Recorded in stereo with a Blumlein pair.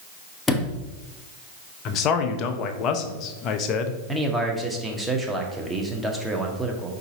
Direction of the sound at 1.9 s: 35° left.